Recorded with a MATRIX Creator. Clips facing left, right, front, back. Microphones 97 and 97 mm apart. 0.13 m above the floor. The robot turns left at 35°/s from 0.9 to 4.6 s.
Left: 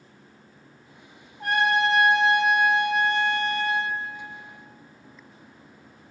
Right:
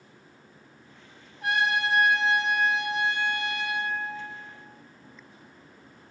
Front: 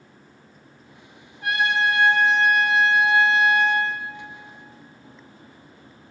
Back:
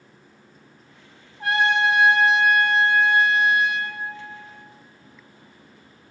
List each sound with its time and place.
1.4 s a trumpet: 125° left, 1.4 m; by 3.9 s 40° left, 1.4 m